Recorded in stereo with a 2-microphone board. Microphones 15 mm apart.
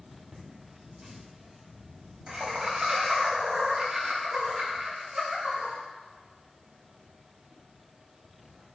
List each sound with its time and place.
0.3 s laughter: 45° right (ahead or behind), 1.4 m; by 5.7 s 75° right (ahead or behind), 5.5 m